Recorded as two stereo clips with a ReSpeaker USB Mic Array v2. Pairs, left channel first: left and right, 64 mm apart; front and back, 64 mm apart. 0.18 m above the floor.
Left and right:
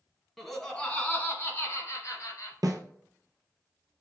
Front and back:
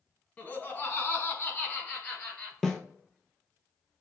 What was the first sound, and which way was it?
Laughter, straight ahead.